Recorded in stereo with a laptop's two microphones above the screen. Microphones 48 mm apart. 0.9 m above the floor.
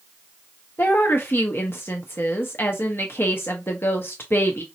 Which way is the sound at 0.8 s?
50° left (ahead or behind).